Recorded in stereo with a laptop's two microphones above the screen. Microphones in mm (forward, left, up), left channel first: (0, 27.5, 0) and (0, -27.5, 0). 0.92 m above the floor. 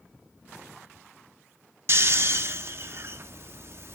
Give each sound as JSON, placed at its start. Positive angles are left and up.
{"t": 1.9, "sound": "snoring", "side_deg": -50, "distance_m": 0.5}